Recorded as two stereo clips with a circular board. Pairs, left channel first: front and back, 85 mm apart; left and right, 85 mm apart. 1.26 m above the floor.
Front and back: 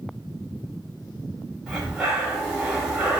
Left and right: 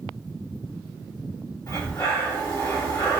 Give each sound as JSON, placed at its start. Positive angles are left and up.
{"t": 1.7, "sound": "breathing", "azimuth_deg": 100, "distance_m": 1.1}